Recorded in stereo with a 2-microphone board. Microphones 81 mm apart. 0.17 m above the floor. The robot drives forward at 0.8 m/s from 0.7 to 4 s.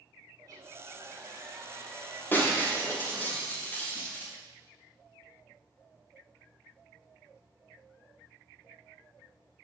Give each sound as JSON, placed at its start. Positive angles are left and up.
{"t": 0.4, "sound": "a hair dryer", "side_deg": -45, "distance_m": 4.0}
{"t": 2.3, "sound": "breaking glass", "side_deg": 25, "distance_m": 5.5}